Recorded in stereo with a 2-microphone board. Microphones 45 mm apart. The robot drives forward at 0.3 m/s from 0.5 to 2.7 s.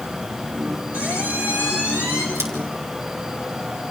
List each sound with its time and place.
0.9 s a squeak: 35° right (ahead or behind), 5.5 m
2.4 s scissors: 75° right (ahead or behind), 3.5 m